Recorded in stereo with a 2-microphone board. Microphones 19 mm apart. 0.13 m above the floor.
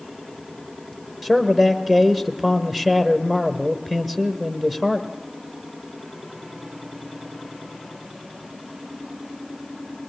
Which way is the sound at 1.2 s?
10° right (ahead or behind).